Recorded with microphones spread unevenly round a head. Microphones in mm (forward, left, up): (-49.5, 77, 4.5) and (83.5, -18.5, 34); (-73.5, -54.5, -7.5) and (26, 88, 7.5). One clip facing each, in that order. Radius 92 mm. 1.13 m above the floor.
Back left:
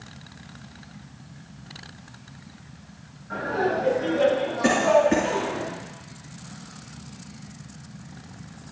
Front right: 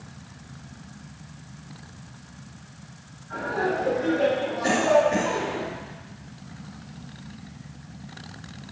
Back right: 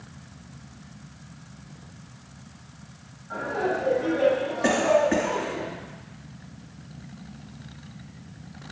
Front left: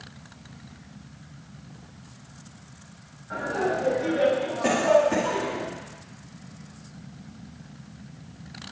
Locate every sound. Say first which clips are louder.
3.3 s laughter: back left 2 dB, even; 125° left, 8 m; by 5.6 s 130° left, 11.5 m
4.6 s a cough: back left 1 dB, front left 1 dB; 160° left, 2.5 m